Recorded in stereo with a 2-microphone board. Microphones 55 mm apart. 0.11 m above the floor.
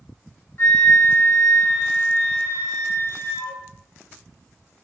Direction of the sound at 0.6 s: 40° left (ahead or behind).